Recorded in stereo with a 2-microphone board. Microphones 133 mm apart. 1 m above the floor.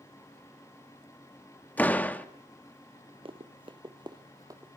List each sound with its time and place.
1.8 s a door slam: 10° left (ahead or behind), 1.1 m
3.2 s running footsteps: 40° right (ahead or behind), 1.3 m; by 4.7 s 25° right (ahead or behind), 1.7 m